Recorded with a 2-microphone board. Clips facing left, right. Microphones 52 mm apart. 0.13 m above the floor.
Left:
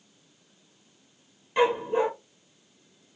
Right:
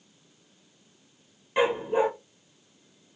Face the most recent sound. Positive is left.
turn(degrees=-15)  # may be behind; listen again after turning